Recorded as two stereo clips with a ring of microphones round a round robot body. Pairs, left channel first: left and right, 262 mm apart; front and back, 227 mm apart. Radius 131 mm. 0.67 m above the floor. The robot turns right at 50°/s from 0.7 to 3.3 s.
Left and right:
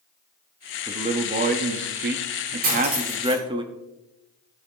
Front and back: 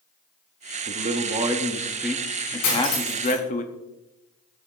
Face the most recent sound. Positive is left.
turn(degrees=0)